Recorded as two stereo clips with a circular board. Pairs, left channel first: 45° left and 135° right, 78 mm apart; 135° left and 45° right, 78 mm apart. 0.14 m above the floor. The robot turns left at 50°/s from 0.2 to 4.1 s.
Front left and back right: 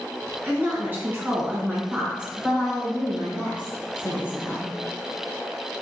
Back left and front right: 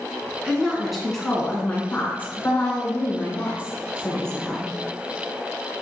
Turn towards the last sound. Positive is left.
turn(degrees=70)